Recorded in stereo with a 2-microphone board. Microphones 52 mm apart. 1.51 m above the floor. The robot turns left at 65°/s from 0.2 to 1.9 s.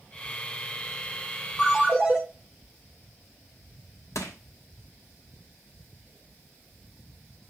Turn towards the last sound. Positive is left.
turn(degrees=70)  # may be behind; listen again after turning